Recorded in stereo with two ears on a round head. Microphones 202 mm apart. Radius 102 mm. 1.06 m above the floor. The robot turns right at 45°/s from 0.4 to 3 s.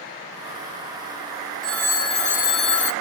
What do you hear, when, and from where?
1.6 s a phone ringing: straight ahead, 0.6 m; by 2.9 s 60° left, 0.6 m